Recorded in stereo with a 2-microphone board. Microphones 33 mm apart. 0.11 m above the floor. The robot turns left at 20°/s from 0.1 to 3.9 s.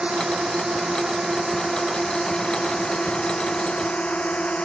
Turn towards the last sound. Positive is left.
turn(degrees=35)  # may be behind; listen again after turning